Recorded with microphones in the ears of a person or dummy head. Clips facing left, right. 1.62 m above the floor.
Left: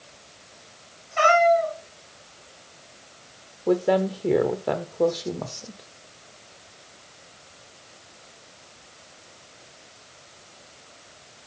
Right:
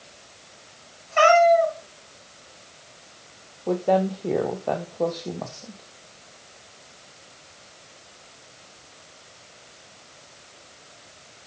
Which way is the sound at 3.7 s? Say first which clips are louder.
Left 1 dB; 15° left (ahead or behind).